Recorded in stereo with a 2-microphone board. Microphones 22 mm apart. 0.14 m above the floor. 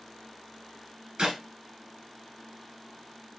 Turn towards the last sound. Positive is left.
turn(degrees=-45)  # may be behind; listen again after turning